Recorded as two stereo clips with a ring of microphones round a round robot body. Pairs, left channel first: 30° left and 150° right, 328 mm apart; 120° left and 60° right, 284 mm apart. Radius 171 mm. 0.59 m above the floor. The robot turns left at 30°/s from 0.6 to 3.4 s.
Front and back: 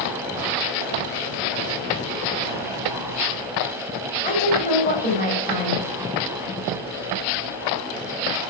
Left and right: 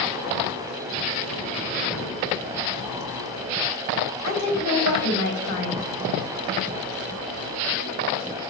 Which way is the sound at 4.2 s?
100° left.